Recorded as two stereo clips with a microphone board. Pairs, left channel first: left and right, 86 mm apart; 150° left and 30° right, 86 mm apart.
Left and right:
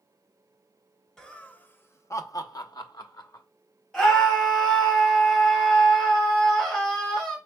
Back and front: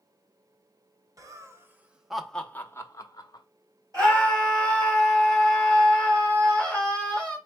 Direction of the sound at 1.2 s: 10° left.